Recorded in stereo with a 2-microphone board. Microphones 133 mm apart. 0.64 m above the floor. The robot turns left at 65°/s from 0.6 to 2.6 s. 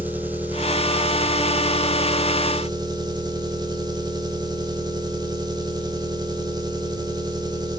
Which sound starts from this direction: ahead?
An engine running, at 0.0 s.